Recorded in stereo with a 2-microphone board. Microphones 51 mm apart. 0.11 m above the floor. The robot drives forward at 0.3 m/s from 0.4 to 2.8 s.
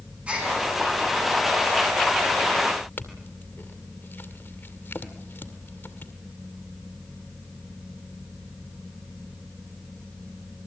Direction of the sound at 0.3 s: 25° right (ahead or behind).